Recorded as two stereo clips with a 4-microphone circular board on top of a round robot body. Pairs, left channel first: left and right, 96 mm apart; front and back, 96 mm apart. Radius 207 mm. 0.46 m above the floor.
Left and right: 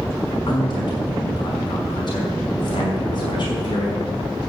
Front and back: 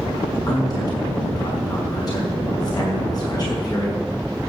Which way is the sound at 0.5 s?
50° left.